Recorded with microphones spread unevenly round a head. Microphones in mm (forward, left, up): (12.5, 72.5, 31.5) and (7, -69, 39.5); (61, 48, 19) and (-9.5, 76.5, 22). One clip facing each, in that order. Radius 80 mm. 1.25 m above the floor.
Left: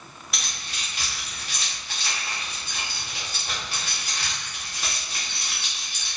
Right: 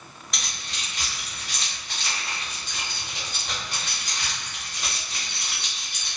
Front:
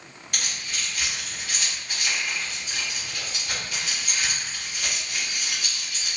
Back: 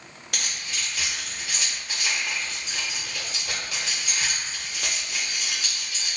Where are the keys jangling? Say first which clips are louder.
Even, even; 175° left, 0.8 m.